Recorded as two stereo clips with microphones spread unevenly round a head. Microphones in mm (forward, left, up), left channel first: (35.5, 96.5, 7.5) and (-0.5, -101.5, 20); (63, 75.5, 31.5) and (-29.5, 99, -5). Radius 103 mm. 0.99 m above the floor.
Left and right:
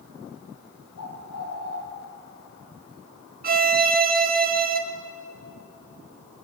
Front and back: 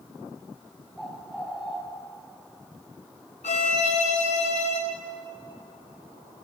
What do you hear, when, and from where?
1.0 s a bird: 75° left, 6 m
3.4 s a violin: 55° right, 1.8 m